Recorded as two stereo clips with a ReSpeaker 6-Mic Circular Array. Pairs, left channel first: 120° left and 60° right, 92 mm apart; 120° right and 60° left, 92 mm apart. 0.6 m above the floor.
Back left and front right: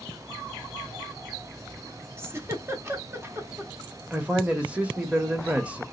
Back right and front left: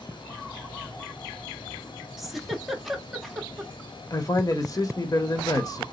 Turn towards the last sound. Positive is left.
turn(degrees=-130)